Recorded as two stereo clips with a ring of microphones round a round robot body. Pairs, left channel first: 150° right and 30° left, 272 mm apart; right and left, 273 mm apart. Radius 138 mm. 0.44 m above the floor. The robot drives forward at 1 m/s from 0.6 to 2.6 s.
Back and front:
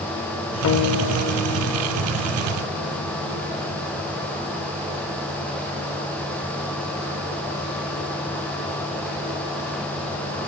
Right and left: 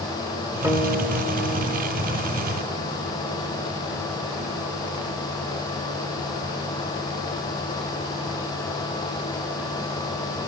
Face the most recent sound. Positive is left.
turn(degrees=175)